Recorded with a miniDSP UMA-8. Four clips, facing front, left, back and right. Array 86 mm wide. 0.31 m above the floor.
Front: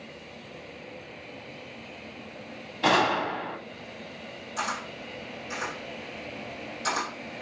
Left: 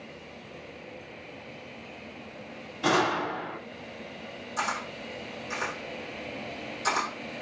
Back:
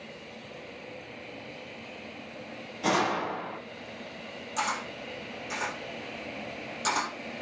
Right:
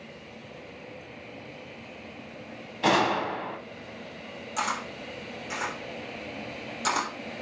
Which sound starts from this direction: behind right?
A camera shutter, at 4.6 s.